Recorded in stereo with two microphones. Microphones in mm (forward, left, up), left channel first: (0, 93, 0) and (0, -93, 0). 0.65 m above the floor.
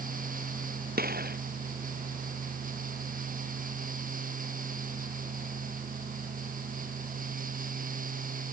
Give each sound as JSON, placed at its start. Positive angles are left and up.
{"t": 1.0, "sound": "a gunshot", "side_deg": -55}